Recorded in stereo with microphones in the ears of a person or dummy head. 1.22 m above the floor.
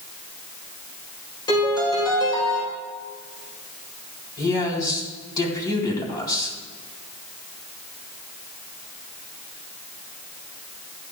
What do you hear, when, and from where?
1.5 s a piano: 25° left (ahead or behind), 6 m
4.4 s a man speaking: 20° left (ahead or behind), 4 m